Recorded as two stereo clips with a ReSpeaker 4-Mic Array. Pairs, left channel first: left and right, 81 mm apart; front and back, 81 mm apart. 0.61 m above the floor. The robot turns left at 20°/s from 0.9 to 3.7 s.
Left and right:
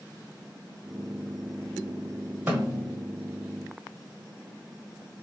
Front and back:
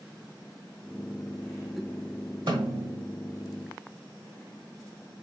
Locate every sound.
2.5 s a snare drum: 155° right, 1.3 m; by 3.0 s 165° right, 1.3 m